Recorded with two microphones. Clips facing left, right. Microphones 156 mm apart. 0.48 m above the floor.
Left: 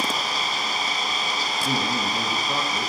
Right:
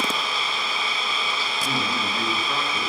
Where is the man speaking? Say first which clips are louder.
Left 2 dB; 25° left (ahead or behind), 3.5 m.